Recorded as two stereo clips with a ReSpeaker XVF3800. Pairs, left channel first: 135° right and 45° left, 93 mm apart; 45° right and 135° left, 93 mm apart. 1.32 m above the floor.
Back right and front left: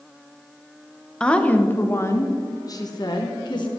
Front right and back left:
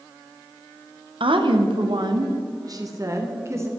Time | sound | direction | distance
1.2 | a woman speaking | 145° left | 1.1 m